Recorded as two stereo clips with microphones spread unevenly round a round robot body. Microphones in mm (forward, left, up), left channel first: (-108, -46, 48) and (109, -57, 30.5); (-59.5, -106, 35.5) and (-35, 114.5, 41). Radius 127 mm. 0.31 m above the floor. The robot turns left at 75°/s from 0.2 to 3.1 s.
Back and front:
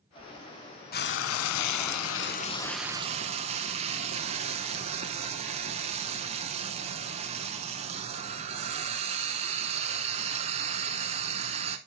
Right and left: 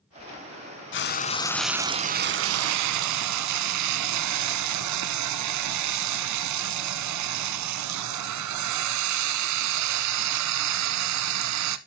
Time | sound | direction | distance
0.9 | frying | 130° right | 0.6 m